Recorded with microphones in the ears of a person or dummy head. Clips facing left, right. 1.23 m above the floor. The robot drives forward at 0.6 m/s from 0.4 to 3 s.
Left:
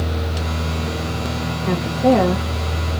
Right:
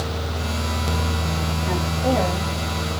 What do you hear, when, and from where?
1.7 s a woman speaking: 55° left (ahead or behind), 1.4 m; by 2.5 s 70° left (ahead or behind), 1.2 m